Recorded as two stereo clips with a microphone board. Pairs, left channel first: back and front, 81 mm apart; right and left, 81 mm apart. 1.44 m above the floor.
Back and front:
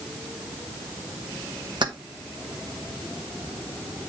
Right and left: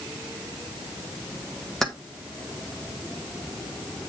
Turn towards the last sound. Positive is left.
turn(degrees=-5)